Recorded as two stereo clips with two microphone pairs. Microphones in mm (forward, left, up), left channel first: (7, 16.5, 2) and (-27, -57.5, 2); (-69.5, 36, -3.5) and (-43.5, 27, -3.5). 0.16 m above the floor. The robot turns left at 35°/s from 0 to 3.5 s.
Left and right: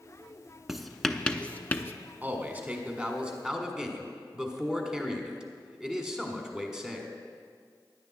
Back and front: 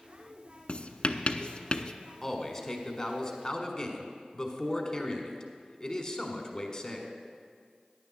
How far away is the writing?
About 0.6 m.